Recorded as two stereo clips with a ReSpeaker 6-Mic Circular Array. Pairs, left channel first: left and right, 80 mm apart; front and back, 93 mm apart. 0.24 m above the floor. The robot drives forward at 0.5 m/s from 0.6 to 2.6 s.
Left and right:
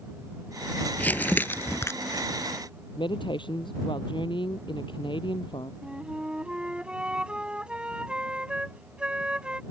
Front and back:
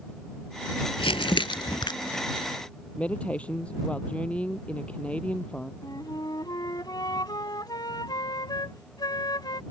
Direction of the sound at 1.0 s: 20° left.